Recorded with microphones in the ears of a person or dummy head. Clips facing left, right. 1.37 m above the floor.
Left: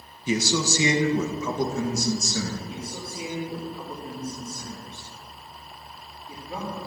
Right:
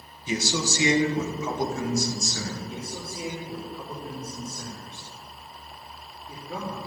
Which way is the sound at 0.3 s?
70° left (ahead or behind).